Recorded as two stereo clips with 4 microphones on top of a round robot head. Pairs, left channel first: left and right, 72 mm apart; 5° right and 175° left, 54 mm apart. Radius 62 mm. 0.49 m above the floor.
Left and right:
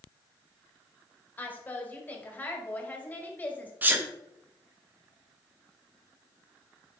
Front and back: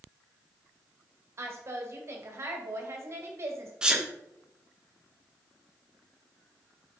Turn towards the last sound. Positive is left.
turn(degrees=-125)